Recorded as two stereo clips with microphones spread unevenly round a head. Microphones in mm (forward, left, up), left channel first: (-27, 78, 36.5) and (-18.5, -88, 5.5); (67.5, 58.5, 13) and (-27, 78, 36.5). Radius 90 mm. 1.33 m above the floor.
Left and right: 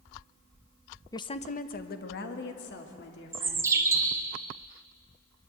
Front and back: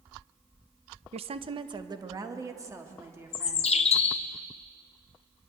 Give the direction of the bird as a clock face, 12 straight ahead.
12 o'clock.